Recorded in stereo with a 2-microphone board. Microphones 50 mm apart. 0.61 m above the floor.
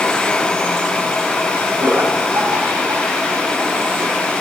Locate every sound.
1.8 s laughter: 70° right (ahead or behind), 3.5 m